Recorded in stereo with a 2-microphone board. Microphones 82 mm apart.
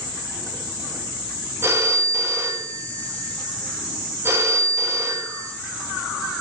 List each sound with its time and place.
1.6 s a phone ringing: 30° right (ahead or behind), 0.8 m